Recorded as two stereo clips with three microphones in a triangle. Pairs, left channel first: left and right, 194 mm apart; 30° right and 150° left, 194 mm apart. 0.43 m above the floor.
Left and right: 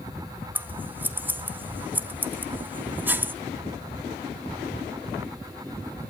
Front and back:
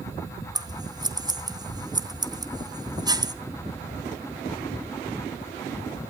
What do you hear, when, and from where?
0.6 s scissors: 160° right, 0.8 m